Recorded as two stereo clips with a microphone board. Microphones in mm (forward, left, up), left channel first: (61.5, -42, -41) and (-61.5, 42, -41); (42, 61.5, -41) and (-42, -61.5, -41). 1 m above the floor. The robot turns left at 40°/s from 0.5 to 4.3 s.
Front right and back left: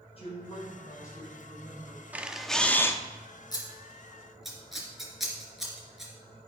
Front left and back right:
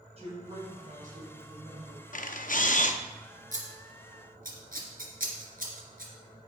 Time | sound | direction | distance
0.2 | a woman speaking | 80° right | 4 m
2.1 | a camera shutter | 70° left | 0.6 m
3.5 | scissors | 95° right | 2 m